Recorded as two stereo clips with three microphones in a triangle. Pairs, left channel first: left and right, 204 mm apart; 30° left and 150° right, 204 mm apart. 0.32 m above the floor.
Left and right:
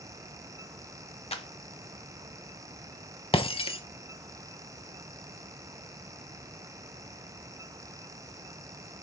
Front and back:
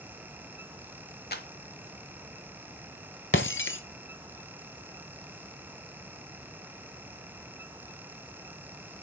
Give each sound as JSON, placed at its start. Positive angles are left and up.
{"t": 1.3, "sound": "a clap", "azimuth_deg": 40, "distance_m": 1.1}
{"t": 3.3, "sound": "breaking glass", "azimuth_deg": 30, "distance_m": 0.6}